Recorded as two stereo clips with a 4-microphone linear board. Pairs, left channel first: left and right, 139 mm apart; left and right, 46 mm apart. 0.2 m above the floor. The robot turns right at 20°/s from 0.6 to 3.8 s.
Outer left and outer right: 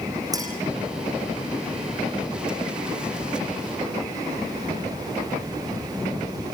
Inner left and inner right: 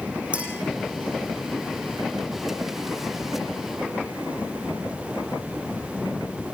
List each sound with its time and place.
0.3 s a clink: 25° right (ahead or behind), 6.5 m